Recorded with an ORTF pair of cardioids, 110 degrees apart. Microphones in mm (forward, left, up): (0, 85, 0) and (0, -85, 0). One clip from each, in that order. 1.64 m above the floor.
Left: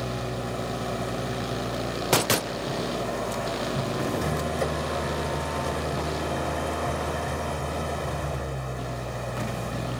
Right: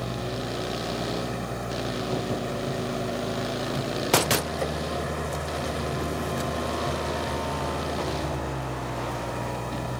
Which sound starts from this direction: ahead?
An engine running, at 0.0 s.